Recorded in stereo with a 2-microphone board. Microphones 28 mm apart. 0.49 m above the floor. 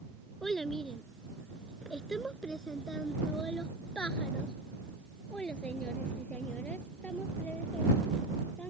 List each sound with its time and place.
0.4 s a child speaking: 10° left (ahead or behind); by 8.7 s 65° left (ahead or behind)